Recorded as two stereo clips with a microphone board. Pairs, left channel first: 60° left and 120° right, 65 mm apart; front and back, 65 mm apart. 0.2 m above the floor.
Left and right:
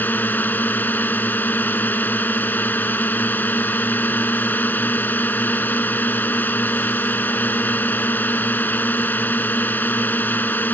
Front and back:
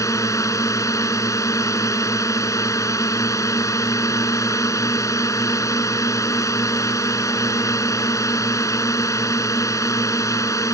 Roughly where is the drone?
Ahead.